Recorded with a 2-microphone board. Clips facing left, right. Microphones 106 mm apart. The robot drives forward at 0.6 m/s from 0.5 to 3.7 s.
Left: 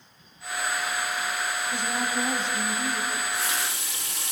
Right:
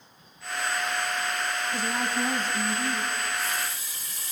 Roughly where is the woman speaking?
Left.